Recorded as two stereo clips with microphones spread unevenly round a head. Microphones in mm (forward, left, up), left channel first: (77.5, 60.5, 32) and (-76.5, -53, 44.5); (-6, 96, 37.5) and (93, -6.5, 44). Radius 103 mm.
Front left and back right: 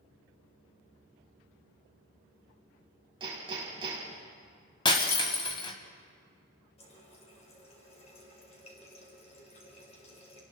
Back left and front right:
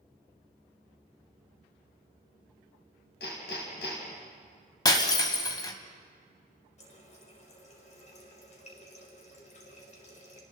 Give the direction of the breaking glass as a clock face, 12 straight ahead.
9 o'clock.